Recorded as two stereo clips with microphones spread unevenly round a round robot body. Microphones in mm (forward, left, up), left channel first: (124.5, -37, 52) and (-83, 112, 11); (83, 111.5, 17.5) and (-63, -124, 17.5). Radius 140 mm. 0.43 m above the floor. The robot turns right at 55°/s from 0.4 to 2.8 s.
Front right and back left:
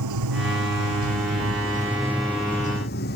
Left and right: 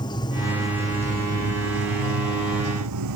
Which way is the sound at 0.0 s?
135° left.